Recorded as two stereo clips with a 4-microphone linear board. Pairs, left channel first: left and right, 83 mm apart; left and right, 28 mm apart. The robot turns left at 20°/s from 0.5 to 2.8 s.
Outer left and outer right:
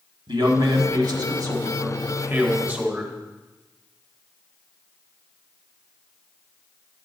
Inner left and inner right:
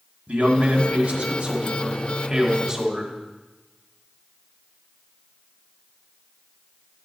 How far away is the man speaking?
About 1.5 m.